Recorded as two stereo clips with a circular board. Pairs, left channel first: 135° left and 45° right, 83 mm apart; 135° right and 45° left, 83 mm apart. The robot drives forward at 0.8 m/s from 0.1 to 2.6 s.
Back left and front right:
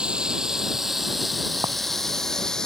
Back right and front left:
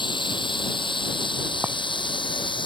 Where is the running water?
125° right; by 2.7 s 140° right.